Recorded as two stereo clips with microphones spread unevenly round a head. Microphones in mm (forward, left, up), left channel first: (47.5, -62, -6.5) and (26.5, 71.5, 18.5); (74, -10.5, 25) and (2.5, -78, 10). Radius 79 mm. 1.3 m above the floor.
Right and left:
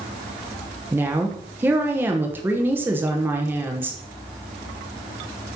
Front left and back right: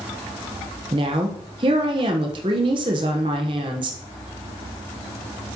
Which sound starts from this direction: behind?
A woman speaking, at 0.9 s.